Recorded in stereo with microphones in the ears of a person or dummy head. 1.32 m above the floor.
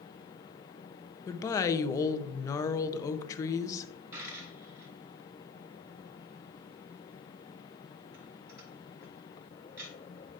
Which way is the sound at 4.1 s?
15° right (ahead or behind).